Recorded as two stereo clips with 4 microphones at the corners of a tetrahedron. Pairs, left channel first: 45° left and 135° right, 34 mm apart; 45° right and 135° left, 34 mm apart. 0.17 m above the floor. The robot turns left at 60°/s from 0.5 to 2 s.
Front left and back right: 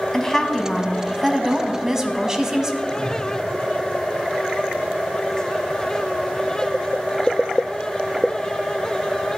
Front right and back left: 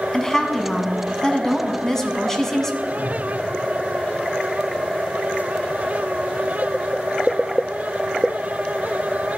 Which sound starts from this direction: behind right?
A whoosh, at 2.9 s.